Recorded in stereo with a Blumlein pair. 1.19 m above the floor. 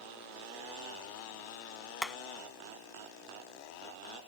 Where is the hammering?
Straight ahead.